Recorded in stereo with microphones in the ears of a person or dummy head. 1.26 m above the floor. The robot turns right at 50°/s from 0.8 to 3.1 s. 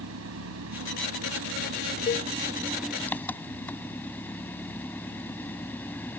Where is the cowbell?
35° left (ahead or behind); by 2.3 s 20° left (ahead or behind).